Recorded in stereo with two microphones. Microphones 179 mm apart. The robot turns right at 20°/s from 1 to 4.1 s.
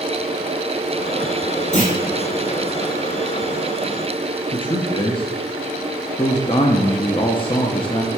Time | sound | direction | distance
1.7 | a clunk | 45° left (ahead or behind) | 2.5 m
4.5 | a man speaking | 30° left (ahead or behind) | 0.6 m